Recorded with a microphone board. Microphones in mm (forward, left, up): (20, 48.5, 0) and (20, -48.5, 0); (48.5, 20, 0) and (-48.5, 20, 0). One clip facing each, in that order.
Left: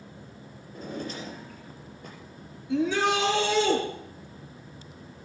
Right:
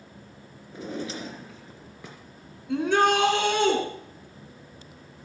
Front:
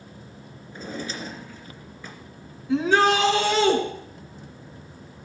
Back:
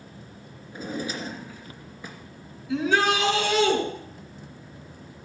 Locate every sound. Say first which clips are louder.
0.7 s a drawer: right 2 dB, back 2 dB; 100° right, 2.5 m
2.7 s a shout: right 3 dB, front 3 dB; 55° right, 4.5 m